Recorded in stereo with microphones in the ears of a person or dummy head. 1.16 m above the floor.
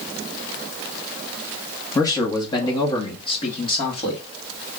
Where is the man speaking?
20° left (ahead or behind), 1.1 m; by 4.2 s 30° left (ahead or behind), 2.5 m.